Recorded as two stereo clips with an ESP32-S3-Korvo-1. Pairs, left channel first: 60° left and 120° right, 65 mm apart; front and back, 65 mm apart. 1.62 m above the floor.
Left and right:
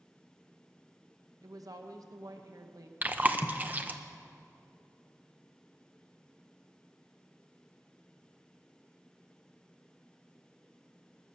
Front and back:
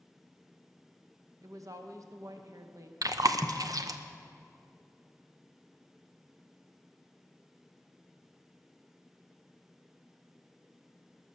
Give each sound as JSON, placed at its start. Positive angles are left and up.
{"t": 1.4, "sound": "a woman speaking", "azimuth_deg": -145, "distance_m": 1.0}
{"t": 3.0, "sound": "chewing", "azimuth_deg": 180, "distance_m": 0.7}